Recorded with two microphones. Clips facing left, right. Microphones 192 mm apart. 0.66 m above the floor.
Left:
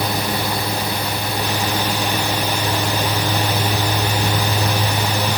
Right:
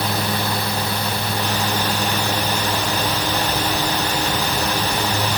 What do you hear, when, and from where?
Only background noise.